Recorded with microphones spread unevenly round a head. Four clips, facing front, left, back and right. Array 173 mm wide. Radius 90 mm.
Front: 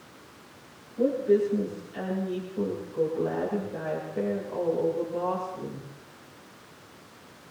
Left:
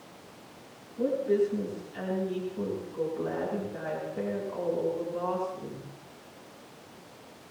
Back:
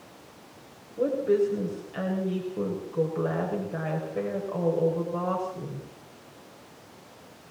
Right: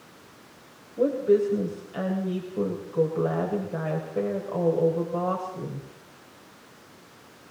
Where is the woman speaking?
95° right, 7.5 m.